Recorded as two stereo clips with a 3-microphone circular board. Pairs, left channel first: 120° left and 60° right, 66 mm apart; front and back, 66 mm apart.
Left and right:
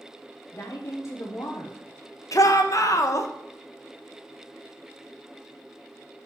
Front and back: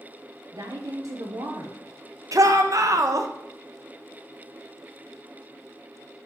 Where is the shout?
150° left, 0.9 m.